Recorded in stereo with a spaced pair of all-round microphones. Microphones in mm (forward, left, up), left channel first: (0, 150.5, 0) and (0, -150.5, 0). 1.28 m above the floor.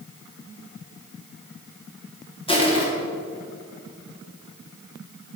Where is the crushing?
15° left (ahead or behind), 1.1 m.